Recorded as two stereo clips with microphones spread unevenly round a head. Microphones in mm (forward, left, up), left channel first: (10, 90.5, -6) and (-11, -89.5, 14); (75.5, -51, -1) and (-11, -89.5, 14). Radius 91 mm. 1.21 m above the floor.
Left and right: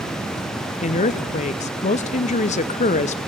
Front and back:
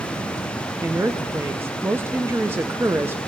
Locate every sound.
0.8 s a woman speaking: 125° left, 0.5 m